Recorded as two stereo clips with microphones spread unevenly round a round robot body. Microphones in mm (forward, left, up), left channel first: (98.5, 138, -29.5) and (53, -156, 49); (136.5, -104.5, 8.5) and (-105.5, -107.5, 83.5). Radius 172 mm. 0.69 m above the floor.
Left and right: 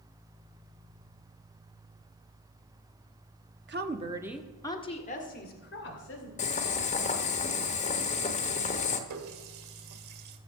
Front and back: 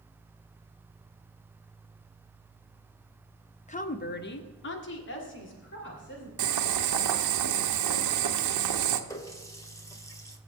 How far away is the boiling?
About 0.8 m.